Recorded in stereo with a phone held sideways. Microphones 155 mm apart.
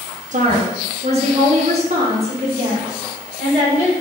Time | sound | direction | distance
0.3 | a woman speaking | 55° right (ahead or behind) | 0.7 m